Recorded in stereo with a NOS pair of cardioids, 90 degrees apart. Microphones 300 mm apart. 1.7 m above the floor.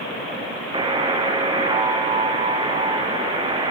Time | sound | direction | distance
0.7 | a buzzer | 15° right | 0.7 m